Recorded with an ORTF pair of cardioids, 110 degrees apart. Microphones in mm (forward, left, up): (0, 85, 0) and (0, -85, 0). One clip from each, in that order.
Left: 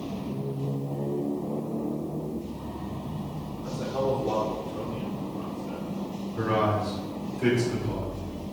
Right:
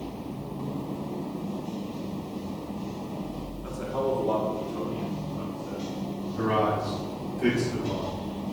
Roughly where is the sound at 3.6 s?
Ahead right.